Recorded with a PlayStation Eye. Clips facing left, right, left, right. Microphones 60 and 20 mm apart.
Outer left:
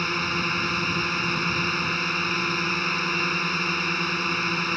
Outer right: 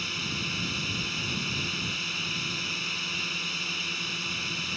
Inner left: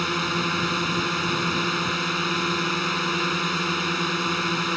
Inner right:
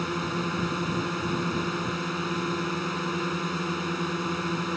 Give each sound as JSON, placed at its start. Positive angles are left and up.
{"t": 0.0, "sound": "a drone", "side_deg": 50}